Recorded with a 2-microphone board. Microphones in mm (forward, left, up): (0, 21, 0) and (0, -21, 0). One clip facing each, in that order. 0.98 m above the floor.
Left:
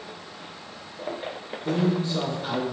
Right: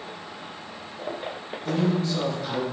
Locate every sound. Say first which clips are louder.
1.6 s a man speaking: even; 30° left (ahead or behind), 1.0 m